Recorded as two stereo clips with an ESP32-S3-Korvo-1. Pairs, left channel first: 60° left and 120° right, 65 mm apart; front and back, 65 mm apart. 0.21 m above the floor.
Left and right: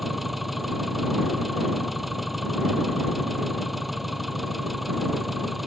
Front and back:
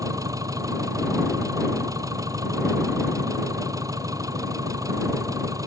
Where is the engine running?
150° left.